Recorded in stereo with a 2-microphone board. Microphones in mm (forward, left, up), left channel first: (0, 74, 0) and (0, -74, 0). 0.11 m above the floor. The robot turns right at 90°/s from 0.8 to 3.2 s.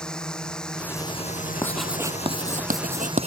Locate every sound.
0.0 s a drone: 5° left; by 3.3 s 140° right
1.6 s writing: 20° left (ahead or behind); by 3.3 s 50° right (ahead or behind)